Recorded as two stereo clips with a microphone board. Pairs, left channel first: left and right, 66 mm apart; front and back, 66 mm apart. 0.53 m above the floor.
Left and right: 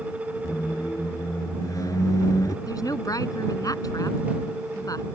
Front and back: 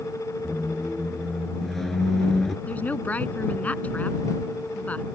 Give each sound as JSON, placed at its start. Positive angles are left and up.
{"t": 0.4, "sound": "a squeak", "azimuth_deg": 85}
{"t": 2.7, "sound": "a woman speaking", "azimuth_deg": 65}